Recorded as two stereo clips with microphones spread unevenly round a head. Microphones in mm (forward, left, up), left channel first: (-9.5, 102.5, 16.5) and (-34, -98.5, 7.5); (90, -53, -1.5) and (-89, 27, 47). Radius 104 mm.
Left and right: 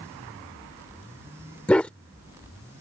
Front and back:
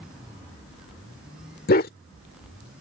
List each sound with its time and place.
1.7 s a dog barking: 10° left